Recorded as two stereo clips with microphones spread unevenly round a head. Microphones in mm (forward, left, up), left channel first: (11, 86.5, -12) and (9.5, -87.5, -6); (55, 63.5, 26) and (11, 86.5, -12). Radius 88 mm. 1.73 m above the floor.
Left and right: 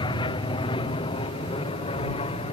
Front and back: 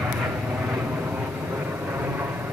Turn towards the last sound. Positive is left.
turn(degrees=140)